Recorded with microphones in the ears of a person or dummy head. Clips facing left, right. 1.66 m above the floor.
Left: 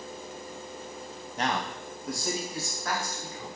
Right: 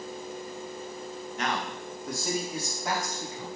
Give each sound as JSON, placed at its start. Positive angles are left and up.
{"t": 1.4, "sound": "a man speaking", "side_deg": 35, "distance_m": 0.6}